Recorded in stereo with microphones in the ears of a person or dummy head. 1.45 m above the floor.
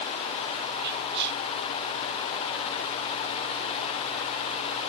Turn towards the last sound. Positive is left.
turn(degrees=-60)  # may be behind; listen again after turning